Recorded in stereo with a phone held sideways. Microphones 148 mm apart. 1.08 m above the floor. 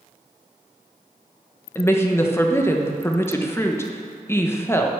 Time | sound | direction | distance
1.8 | a woman speaking | 15° left (ahead or behind) | 0.9 m